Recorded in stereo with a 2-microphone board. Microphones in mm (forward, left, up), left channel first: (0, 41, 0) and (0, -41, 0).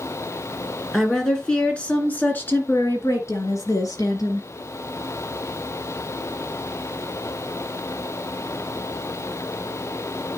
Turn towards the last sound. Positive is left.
turn(degrees=50)  # may be behind; listen again after turning